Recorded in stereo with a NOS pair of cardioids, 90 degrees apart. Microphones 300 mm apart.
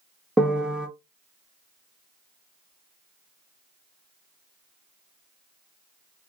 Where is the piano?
5° right, 0.6 m.